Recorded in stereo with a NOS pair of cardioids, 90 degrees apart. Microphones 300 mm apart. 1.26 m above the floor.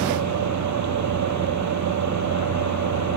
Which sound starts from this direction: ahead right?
A fan, at 0.0 s.